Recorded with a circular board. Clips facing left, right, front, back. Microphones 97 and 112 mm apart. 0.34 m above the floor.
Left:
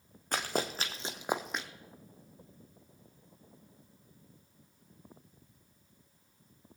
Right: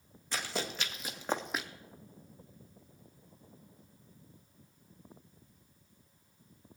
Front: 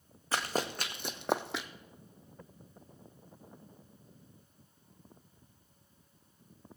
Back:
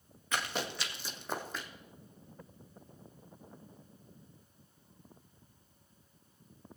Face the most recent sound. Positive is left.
turn(degrees=-10)